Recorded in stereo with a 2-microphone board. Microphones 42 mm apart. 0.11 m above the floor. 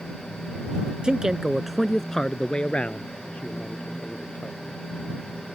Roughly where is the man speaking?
Right.